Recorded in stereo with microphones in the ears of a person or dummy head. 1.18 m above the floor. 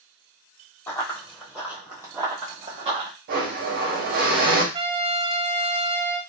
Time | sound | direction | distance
0.9 | running footsteps | 10° left (ahead or behind) | 1.7 m
3.3 | a blender | 55° right (ahead or behind) | 1.0 m
4.7 | a trumpet | 25° right (ahead or behind) | 0.7 m